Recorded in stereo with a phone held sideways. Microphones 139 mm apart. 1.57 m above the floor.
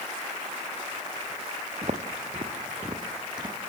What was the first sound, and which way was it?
Footsteps, 50° right (ahead or behind).